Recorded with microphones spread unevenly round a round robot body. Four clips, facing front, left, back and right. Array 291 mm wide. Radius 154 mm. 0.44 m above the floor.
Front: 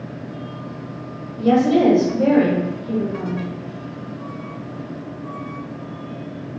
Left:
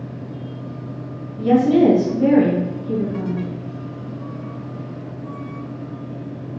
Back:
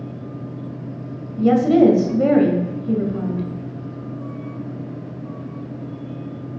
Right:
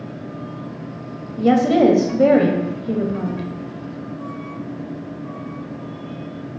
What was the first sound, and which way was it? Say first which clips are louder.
A woman speaking: even, back 2 dB; 120° right.